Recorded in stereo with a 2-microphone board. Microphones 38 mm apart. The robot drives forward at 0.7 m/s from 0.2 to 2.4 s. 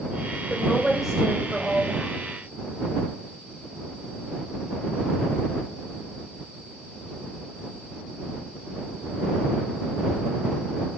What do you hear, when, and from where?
0.5 s a woman speaking: 5° right (ahead or behind), 1.6 m